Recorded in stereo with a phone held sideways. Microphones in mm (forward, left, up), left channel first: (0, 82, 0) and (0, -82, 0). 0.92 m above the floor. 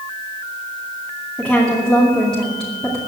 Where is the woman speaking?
5° left (ahead or behind), 2.5 m.